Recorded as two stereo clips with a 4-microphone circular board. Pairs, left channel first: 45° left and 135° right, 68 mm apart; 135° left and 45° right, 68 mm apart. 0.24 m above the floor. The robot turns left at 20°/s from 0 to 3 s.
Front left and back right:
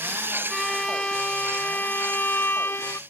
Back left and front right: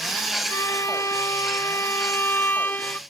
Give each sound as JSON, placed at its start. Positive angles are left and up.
{"t": 0.5, "sound": "a violin", "azimuth_deg": 130}